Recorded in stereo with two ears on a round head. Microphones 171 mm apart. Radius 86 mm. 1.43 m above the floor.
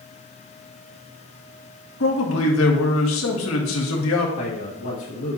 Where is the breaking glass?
No breaking glass in this recording.